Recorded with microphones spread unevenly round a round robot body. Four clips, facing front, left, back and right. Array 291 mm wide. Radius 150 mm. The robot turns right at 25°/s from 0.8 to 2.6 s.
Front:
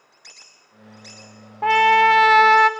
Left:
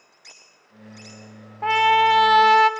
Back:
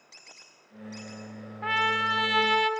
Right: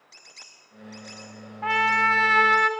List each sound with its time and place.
1.6 s a trumpet: 15° left, 0.7 m; by 2.7 s 40° left, 0.7 m